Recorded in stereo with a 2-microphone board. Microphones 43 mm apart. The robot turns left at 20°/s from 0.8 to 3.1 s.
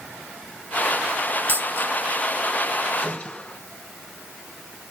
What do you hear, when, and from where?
1.5 s a dropped coin: 50° right (ahead or behind), 2 m; by 1.9 s 40° right (ahead or behind), 2 m
3.0 s a gunshot: 30° left (ahead or behind), 4 m